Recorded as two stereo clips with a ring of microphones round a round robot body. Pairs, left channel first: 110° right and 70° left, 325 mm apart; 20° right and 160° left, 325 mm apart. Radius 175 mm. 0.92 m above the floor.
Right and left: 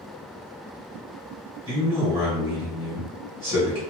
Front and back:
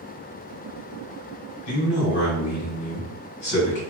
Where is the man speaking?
5° right, 1.9 m.